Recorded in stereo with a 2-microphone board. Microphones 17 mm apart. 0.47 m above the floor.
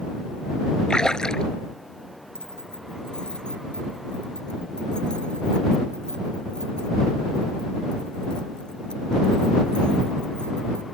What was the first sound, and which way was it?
A splash, 55° left (ahead or behind).